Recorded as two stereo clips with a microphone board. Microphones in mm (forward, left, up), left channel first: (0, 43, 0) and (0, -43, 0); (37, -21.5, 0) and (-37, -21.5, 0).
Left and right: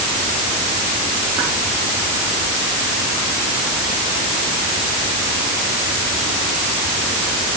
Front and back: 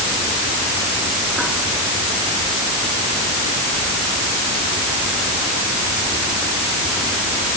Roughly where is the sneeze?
No sneeze in this recording.